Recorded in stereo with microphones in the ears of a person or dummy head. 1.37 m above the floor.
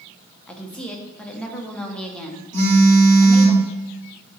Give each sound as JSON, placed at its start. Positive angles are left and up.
{"t": 0.5, "sound": "a woman speaking", "side_deg": 10, "distance_m": 0.7}
{"t": 2.5, "sound": "a phone buzzing", "side_deg": -45, "distance_m": 1.4}